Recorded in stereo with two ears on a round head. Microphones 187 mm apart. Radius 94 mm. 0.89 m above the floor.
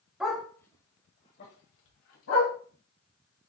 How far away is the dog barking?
About 1.4 m.